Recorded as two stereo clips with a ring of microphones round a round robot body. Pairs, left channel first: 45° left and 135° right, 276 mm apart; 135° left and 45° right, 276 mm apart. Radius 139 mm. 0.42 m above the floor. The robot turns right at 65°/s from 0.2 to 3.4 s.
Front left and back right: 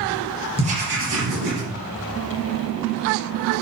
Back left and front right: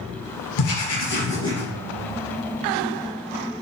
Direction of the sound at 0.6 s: 150° left.